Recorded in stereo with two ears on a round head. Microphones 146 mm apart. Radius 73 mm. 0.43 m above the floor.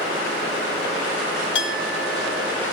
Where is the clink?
80° left, 3.5 m.